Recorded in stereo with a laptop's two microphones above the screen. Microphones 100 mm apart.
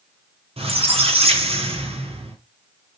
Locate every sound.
0.6 s a squeak: 80° right, 0.7 m